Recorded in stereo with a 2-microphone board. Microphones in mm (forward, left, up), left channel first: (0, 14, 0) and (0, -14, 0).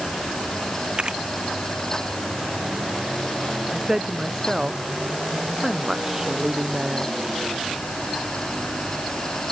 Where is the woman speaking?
15° right (ahead or behind).